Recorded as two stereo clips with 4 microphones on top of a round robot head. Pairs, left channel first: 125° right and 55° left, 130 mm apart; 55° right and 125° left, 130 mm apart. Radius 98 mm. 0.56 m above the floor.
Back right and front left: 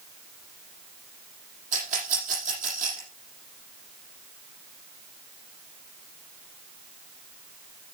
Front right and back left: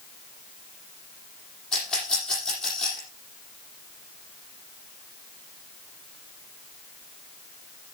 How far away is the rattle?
About 8 m.